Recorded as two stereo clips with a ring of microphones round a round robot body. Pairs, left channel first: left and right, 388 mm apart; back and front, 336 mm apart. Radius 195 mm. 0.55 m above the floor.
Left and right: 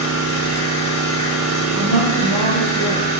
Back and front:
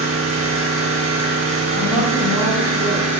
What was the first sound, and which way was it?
An engine running, 40° right.